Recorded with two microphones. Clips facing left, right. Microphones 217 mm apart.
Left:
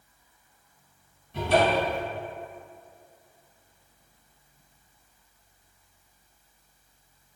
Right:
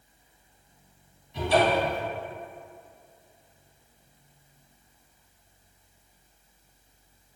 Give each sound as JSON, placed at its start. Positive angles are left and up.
{"t": 1.3, "sound": "a cupboard door", "side_deg": 60, "distance_m": 1.3}